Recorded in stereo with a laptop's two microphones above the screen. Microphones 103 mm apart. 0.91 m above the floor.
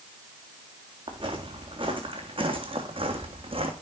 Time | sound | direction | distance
1.1 | footsteps | 50° right (ahead or behind) | 3.5 m